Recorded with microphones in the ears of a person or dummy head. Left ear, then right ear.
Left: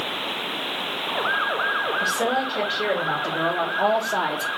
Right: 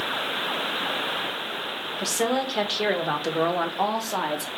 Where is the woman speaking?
45° right (ahead or behind), 1.6 m; by 4.5 s 10° left (ahead or behind), 0.8 m.